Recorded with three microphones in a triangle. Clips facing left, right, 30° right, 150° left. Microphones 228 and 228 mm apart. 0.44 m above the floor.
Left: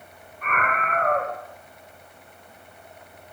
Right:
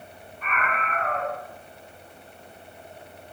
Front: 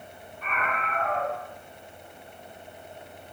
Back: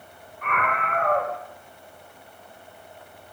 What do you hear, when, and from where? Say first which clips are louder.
0.4 s a scream: left 3 dB, back 4 dB; 125° left, 3 m